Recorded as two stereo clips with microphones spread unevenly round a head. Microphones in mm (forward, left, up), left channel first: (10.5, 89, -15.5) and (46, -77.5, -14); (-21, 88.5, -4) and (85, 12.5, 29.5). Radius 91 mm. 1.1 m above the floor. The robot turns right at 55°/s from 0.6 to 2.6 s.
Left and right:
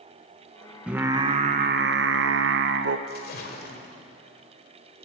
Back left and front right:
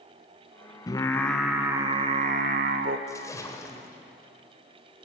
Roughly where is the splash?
Left.